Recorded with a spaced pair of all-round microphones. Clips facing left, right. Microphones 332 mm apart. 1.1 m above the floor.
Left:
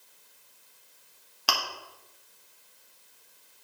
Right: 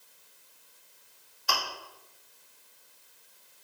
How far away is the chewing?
About 2.5 m.